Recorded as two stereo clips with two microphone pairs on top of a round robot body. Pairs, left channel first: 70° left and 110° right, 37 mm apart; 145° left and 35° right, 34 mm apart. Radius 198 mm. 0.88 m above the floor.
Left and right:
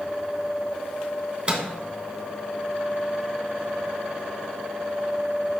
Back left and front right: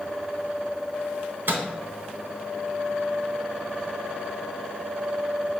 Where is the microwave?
55° right, 0.9 m.